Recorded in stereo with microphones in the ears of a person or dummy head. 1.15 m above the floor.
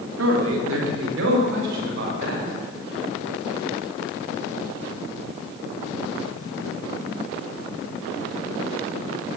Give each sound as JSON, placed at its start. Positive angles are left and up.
{"t": 0.2, "sound": "a man speaking", "side_deg": -80, "distance_m": 3.0}